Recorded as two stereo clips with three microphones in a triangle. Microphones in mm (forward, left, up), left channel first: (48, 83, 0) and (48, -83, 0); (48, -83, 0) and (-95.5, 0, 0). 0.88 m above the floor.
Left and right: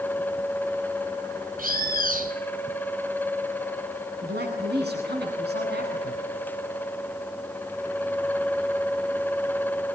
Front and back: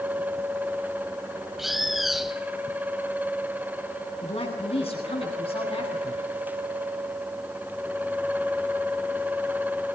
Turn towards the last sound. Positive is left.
turn(degrees=-85)